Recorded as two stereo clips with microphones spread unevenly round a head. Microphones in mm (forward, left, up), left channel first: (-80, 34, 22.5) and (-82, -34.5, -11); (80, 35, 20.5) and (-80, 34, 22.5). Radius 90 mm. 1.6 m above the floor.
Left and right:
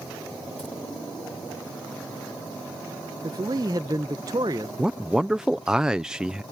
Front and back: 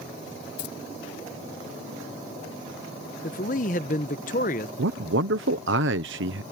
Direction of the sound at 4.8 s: 170° right.